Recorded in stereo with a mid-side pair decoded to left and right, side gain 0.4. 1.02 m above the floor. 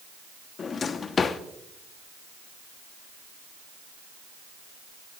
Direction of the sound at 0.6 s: 55° left.